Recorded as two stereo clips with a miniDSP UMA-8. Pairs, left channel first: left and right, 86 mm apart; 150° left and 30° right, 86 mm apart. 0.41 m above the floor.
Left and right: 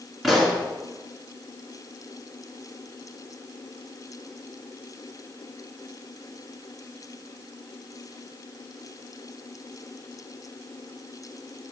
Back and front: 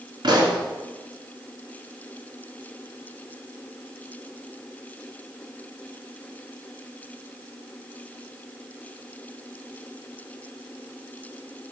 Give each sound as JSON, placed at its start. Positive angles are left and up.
{"t": 0.2, "sound": "a pop", "azimuth_deg": 0, "distance_m": 2.5}